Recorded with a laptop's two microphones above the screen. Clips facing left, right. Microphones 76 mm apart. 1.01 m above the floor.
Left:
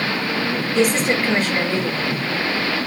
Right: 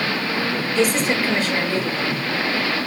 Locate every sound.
0.8 s a woman speaking: 45° left (ahead or behind), 2.5 m